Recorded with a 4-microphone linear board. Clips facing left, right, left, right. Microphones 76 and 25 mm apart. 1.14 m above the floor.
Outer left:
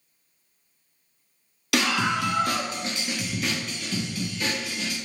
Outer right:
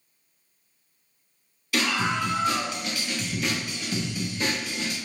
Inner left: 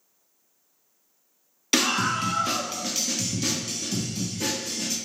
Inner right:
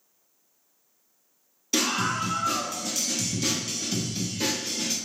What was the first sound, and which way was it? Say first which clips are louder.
A scream: outer left 1 dB, inner left 2 dB; 80° left.